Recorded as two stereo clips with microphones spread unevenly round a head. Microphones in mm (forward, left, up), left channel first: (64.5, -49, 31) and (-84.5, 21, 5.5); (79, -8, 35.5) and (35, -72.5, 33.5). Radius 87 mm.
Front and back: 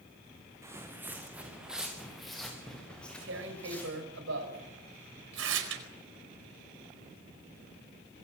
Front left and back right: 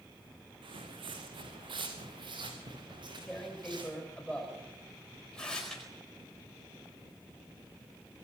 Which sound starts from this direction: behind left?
Tearing paper, at 2.9 s.